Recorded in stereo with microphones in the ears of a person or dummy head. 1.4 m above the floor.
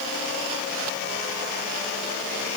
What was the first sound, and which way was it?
Only background noise.